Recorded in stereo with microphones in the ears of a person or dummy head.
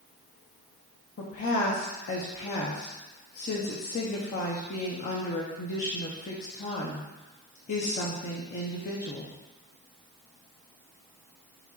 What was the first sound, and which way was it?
A woman speaking, 45° left (ahead or behind).